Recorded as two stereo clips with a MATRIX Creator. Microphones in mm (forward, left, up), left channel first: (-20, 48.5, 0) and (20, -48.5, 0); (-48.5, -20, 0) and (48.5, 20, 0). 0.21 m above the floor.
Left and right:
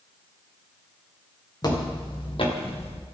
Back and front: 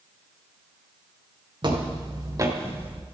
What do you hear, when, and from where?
1.6 s footsteps: 65° left, 3.5 m; by 3.0 s 100° left, 2 m